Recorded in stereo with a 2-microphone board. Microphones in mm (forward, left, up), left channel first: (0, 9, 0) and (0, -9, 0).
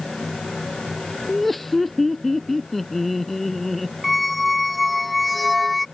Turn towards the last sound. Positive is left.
turn(degrees=5)  # may be behind; listen again after turning